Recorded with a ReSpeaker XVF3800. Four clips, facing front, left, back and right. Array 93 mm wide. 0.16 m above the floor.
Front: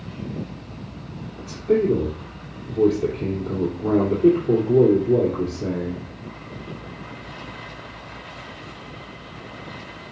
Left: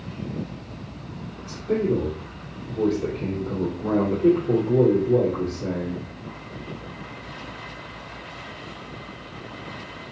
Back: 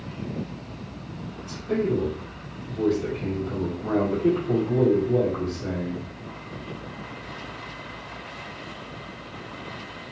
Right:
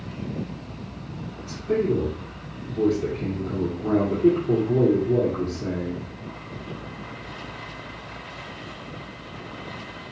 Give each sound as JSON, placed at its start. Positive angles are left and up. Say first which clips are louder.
{"t": 1.4, "sound": "a man speaking", "louder": "even, front 6 dB", "azimuth_deg": 0, "distance_m": 3.0}